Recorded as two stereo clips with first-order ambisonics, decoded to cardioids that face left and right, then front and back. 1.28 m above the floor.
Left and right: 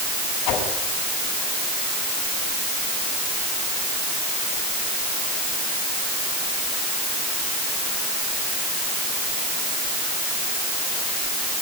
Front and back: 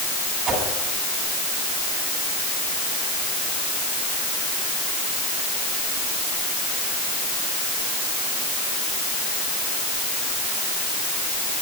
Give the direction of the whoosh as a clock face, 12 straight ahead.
8 o'clock.